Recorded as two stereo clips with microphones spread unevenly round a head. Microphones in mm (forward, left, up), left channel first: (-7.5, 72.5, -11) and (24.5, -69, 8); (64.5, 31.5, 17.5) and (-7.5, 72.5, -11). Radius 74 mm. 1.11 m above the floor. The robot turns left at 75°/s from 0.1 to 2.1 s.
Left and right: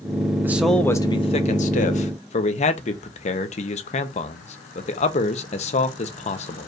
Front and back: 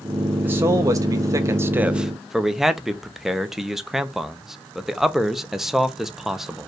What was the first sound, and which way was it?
A man speaking, 155° right.